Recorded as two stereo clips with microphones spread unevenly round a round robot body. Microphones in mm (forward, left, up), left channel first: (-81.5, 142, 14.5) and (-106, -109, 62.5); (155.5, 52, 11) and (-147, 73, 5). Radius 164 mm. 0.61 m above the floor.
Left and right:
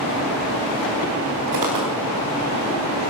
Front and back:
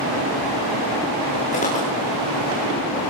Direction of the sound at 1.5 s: 75° right.